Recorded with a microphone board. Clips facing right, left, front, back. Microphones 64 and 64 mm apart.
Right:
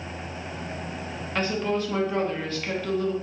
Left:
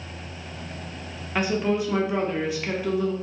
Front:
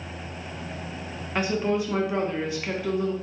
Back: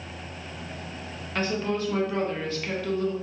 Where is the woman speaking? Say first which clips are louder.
Left 2 dB, front 3 dB; 40° left, 0.6 m.